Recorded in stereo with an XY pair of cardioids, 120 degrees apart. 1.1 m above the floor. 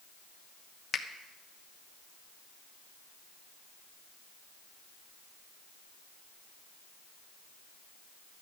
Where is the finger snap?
35° left, 1.0 m.